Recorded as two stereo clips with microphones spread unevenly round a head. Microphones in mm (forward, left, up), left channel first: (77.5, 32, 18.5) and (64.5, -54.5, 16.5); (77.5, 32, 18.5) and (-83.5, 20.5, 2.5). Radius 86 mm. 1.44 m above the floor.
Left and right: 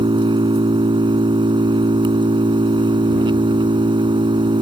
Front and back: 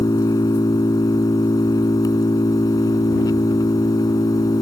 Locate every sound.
0.0 s an engine running: 70° right